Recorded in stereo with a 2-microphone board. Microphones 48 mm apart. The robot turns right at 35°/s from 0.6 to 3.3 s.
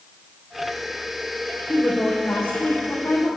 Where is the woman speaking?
20° left, 3 m; by 3.3 s 75° left, 3 m.